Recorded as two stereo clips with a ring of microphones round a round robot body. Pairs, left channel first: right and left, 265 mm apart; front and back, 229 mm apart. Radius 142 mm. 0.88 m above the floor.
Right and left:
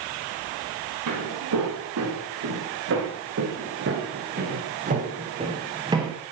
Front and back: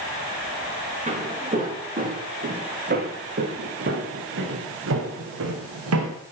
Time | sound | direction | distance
1.1 | footsteps | 120° left | 6.5 m